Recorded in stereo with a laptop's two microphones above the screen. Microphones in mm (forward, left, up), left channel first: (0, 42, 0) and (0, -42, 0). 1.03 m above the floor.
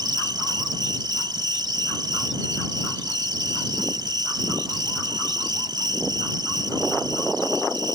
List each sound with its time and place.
0.0 s an insect: 60° right (ahead or behind)